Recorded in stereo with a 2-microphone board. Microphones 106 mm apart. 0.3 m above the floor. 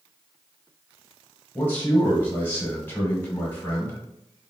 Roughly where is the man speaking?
Centre.